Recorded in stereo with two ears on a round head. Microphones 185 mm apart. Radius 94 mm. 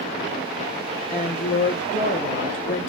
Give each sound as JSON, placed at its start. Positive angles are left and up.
{"t": 1.1, "sound": "a woman speaking", "side_deg": 40, "distance_m": 1.8}